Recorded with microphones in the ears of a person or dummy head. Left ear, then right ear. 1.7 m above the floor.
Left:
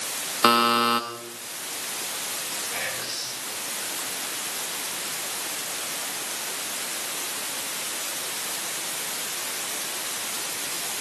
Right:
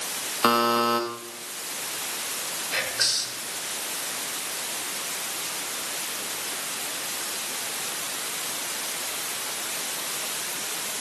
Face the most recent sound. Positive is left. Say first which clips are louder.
# right 9 dB
turn(degrees=-75)  # may be behind; listen again after turning